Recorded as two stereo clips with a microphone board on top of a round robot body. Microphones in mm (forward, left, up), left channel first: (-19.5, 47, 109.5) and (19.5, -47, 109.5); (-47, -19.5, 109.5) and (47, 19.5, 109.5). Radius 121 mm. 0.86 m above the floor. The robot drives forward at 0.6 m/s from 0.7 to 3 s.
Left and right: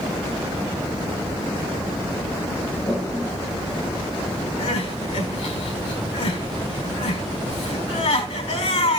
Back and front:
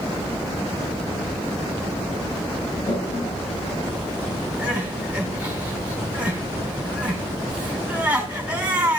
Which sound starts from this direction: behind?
A toilet flushing, at 2.9 s.